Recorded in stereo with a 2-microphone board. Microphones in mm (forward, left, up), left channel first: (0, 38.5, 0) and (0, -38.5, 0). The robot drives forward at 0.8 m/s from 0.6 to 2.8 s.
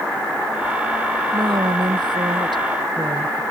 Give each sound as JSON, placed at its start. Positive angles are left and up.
{"t": 1.3, "sound": "a woman speaking", "side_deg": -85}